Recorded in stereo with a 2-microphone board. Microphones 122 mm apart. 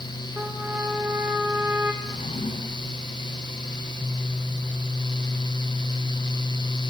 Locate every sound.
0.4 s a trumpet: 15° right (ahead or behind), 3 m
2.0 s a drawer: 85° left, 6.5 m